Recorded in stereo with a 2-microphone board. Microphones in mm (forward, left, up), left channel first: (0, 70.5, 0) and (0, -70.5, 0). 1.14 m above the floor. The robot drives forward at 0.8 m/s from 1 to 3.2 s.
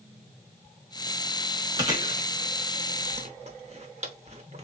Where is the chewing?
25° right (ahead or behind), 1.4 m; by 4.6 s 45° right (ahead or behind), 0.7 m.